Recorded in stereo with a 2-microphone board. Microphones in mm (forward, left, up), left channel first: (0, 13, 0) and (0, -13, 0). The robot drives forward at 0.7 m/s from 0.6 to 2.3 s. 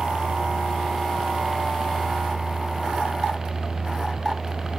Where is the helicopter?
35° right (ahead or behind); by 4.8 s 25° right (ahead or behind).